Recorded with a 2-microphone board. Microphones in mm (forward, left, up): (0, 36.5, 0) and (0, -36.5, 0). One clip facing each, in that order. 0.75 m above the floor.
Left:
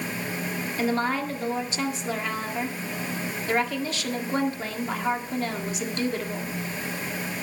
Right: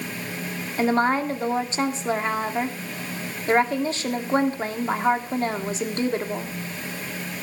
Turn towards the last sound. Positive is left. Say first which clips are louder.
# right 5 dB
turn(degrees=-35)  # may be behind; listen again after turning